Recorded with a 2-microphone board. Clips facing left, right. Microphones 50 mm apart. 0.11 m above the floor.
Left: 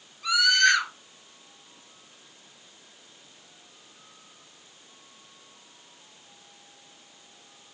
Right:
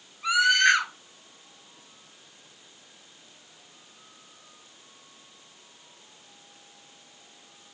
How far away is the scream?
About 1.9 m.